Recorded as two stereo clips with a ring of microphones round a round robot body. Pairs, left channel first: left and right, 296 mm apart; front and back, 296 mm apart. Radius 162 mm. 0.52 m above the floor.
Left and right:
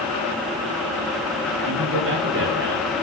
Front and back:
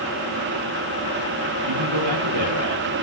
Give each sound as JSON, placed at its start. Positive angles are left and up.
{"t": 1.6, "sound": "a man speaking", "azimuth_deg": -145, "distance_m": 9.0}